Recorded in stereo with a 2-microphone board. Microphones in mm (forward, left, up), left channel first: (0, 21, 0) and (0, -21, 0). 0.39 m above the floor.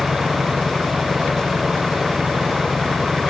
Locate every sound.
0.0 s an engine running: 10° right (ahead or behind)